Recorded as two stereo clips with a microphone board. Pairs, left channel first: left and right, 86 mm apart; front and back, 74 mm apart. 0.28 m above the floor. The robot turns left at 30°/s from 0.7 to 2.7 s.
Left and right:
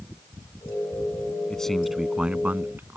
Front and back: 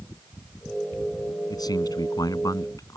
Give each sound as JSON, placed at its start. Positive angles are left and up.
{"t": 1.5, "sound": "a man speaking", "azimuth_deg": 10}